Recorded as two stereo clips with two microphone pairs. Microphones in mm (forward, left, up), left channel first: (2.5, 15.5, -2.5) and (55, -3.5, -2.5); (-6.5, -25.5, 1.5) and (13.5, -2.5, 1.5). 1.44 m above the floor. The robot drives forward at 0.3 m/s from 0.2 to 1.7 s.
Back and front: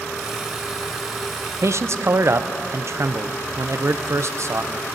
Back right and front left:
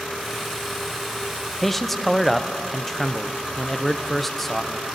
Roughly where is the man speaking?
Ahead right.